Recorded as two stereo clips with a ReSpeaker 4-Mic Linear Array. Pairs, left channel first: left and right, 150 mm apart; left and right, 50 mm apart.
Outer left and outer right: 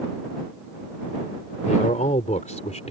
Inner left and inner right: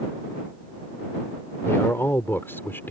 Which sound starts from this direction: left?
A man speaking, at 1.6 s.